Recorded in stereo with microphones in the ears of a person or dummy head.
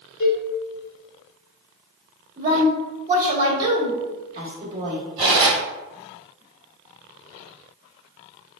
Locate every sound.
0.2 s a cowbell: 65° left (ahead or behind), 0.9 m
2.4 s a woman speaking: 25° right (ahead or behind), 1.4 m
5.2 s cutlery clinking: 30° right (ahead or behind), 1.7 m